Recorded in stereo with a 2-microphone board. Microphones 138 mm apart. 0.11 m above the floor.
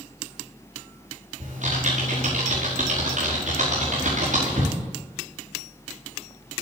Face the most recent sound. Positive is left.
turn(degrees=-65)  # may be behind; listen again after turning